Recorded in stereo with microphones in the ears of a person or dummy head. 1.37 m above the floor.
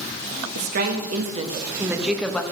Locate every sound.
0.6 s a woman speaking: 65° right (ahead or behind), 1.5 m; by 2.4 s 10° left (ahead or behind), 1.1 m